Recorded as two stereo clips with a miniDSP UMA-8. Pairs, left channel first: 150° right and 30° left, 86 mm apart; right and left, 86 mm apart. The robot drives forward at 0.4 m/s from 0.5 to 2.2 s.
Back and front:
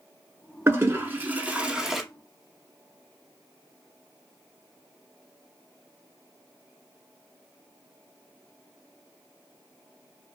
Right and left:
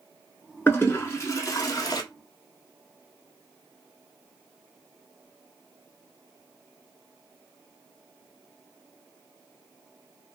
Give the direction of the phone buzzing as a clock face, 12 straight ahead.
I don't hear a phone buzzing.